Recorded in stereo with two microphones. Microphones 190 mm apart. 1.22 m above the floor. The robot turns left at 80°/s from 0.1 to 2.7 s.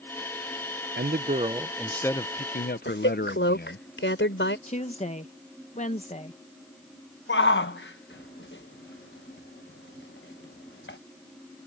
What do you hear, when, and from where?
1.0 s a man speaking: 105° right; by 3.9 s 115° left
2.9 s a woman speaking: 85° left
4.7 s a woman speaking: 35° left (ahead or behind)
7.3 s a shout: 75° left (ahead or behind)